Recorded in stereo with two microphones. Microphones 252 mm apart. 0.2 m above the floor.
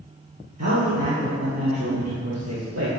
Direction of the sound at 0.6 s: 75° right (ahead or behind).